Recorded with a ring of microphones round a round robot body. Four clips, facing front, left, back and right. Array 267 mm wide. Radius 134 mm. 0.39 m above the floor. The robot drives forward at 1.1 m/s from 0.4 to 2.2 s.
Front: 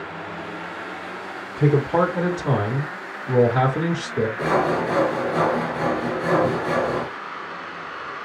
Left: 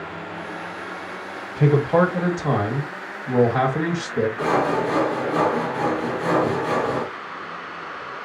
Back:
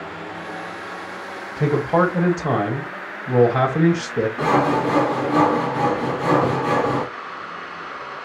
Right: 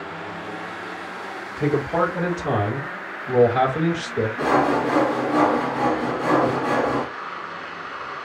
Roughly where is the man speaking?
Behind left.